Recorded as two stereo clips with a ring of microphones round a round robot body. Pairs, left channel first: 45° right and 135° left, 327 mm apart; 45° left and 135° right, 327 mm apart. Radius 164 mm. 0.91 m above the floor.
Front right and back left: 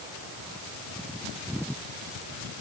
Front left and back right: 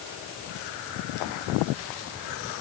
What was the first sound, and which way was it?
Only background noise.